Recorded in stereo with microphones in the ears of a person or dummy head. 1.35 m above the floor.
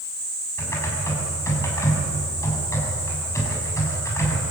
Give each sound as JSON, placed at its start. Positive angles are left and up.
{"t": 0.6, "sound": "typing on a keyboard", "side_deg": 15, "distance_m": 6.5}